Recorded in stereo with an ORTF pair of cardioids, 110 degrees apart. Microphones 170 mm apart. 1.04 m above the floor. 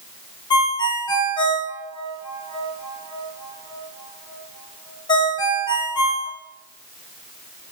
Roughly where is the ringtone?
Ahead left.